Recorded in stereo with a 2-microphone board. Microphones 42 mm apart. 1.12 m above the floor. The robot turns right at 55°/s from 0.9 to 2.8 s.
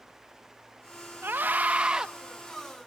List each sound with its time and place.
1.2 s a scream: 60° right, 1.2 m; by 2.1 s 15° right, 1.2 m